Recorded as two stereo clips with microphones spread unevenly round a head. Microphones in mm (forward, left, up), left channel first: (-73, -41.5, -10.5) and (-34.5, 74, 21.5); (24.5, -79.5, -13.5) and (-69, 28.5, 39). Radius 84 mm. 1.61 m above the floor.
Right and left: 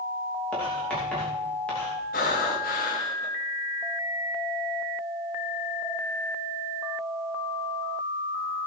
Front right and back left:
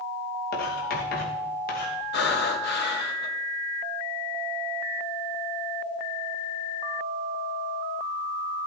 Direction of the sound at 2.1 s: 60° right.